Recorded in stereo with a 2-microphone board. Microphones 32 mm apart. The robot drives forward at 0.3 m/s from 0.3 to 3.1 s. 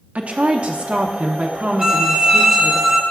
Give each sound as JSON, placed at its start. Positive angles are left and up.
{"t": 0.1, "sound": "a woman speaking", "side_deg": -40, "distance_m": 0.7}
{"t": 1.8, "sound": "a violin", "side_deg": -15, "distance_m": 0.9}